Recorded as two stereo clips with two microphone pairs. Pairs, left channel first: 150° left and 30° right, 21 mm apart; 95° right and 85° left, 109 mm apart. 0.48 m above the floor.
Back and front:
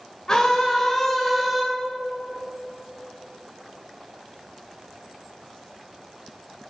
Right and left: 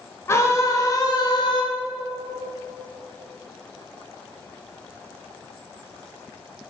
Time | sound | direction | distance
0.3 | a scream | 155° right | 2.5 m